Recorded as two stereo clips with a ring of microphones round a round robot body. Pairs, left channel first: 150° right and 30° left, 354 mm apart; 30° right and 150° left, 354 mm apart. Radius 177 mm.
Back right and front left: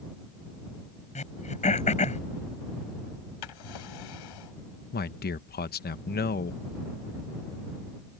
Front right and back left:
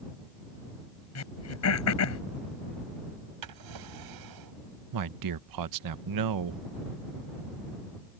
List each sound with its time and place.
1.1 s throat clearing: 80° right
3.4 s a drawer: 175° right
4.9 s a man speaking: 150° left